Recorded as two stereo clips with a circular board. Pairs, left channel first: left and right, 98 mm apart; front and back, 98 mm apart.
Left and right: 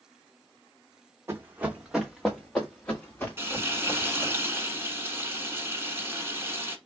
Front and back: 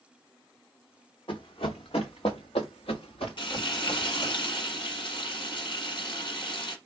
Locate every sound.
1.3 s running footsteps: 25° right, 0.8 m; by 4.3 s 25° left, 2.5 m
3.4 s frying: 25° right, 1.0 m